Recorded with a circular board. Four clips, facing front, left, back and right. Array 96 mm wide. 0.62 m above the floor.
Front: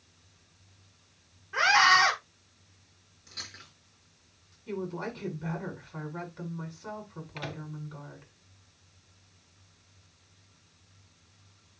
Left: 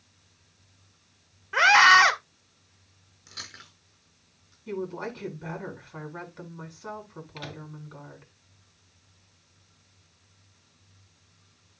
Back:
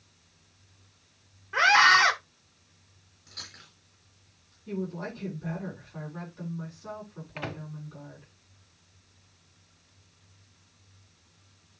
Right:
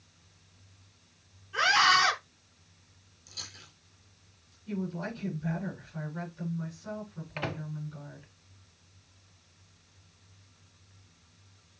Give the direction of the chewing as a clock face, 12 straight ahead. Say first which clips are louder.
Left 5 dB, front 1 dB; 9 o'clock.